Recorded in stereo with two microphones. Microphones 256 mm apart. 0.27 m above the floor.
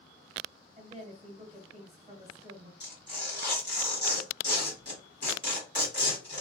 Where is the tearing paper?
45° left (ahead or behind), 1.8 m.